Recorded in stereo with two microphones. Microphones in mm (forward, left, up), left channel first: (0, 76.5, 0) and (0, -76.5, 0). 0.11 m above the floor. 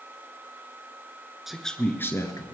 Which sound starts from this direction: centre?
A man speaking, at 1.5 s.